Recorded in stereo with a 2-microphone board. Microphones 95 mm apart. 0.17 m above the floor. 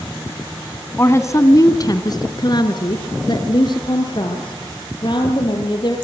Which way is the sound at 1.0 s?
25° left (ahead or behind).